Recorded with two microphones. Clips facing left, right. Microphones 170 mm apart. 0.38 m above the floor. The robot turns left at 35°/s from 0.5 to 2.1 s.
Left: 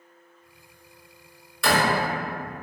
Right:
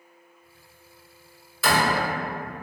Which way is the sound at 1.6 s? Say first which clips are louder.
Left 1 dB; 5° right (ahead or behind).